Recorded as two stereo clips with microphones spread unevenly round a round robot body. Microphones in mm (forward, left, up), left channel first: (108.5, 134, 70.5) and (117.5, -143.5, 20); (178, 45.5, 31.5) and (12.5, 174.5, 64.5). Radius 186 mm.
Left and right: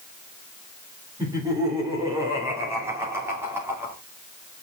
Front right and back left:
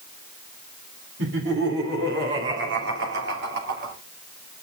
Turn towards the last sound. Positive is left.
turn(degrees=-165)